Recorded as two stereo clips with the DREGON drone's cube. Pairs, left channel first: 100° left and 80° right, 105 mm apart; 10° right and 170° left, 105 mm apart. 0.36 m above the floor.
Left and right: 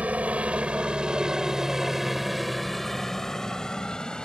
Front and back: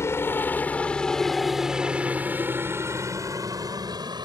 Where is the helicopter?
20° right; by 4.2 s straight behind.